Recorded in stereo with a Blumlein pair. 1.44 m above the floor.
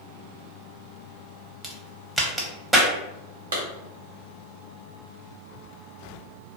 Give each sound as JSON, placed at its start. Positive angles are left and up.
{"t": 1.6, "sound": "a crack", "azimuth_deg": -10, "distance_m": 0.6}
{"t": 3.5, "sound": "a clap", "azimuth_deg": -65, "distance_m": 1.1}